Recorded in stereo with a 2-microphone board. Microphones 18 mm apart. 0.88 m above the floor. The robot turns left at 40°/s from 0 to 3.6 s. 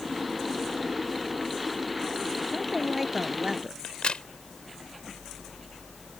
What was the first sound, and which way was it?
A woman speaking, 5° left.